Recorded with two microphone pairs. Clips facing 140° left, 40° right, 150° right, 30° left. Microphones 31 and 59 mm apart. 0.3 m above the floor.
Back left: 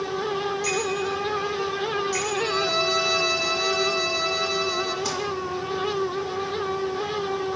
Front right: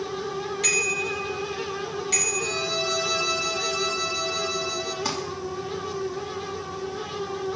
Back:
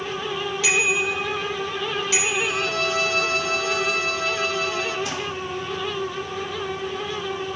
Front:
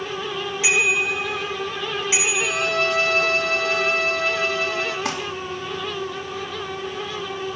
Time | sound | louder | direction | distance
0.6 | a bicycle bell | front right 1 dB, front 2 dB | 40° right | 6.5 m
2.4 | a violin | back left 4 dB, front 2 dB | 75° left | 2 m
5.0 | crumpling | even, front 4 dB | 30° left | 3.5 m